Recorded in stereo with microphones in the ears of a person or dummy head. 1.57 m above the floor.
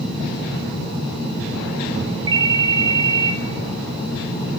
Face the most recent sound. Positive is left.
turn(degrees=-25)  # may be behind; listen again after turning